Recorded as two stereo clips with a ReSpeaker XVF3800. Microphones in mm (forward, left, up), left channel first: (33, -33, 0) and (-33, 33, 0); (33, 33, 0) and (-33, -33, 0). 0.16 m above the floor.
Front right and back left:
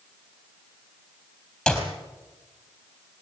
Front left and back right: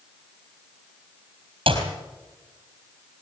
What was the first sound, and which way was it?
A clap, 130° right.